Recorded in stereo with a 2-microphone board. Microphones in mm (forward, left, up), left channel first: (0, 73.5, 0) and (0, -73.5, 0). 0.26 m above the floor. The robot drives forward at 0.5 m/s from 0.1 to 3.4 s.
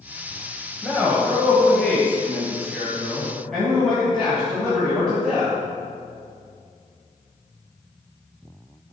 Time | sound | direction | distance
0.8 | a man speaking | 5° left (ahead or behind) | 1.3 m